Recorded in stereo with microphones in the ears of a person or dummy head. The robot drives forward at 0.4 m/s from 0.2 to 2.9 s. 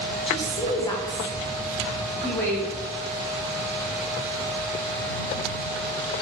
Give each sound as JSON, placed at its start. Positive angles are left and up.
{"t": 0.3, "sound": "a woman speaking", "side_deg": 30, "distance_m": 0.6}